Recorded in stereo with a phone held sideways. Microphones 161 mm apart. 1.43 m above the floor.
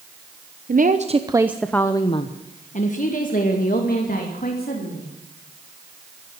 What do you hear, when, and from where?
0.7 s a woman speaking: 60° right (ahead or behind), 0.9 m; by 5.1 s 65° left (ahead or behind), 3 m